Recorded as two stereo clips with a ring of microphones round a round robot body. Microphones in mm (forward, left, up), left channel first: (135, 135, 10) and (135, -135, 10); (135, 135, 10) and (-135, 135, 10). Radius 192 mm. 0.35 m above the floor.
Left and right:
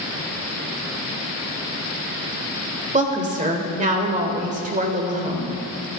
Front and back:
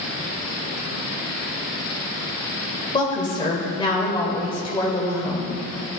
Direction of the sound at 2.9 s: 60° right.